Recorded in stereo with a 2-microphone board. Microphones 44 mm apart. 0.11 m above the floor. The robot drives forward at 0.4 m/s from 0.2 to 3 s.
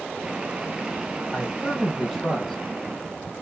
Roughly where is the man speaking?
Centre.